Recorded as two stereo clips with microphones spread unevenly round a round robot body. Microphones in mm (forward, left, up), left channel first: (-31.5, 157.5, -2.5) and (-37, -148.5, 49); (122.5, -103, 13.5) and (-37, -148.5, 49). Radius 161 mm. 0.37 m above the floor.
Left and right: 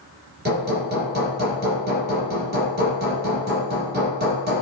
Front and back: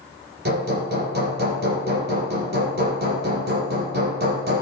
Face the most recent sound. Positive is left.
turn(degrees=-150)